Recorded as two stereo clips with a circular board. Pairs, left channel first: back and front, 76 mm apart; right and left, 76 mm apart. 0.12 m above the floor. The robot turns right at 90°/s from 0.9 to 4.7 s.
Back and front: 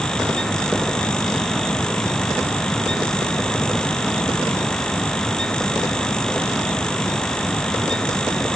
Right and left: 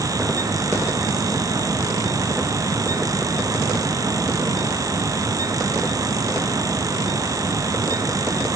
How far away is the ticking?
I don't hear ticking.